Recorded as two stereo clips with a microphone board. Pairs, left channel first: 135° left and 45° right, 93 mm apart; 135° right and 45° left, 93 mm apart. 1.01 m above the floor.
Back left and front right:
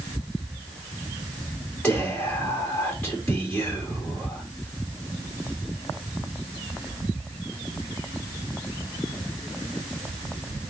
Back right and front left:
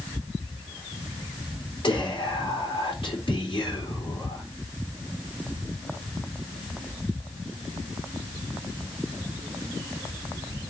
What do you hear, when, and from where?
1.8 s whispering: 145° right, 3 m